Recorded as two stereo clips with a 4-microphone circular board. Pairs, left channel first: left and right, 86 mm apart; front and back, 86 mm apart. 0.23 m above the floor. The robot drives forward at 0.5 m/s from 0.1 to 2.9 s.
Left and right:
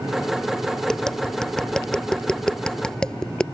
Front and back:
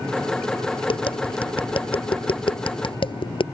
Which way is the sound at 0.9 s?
5° left.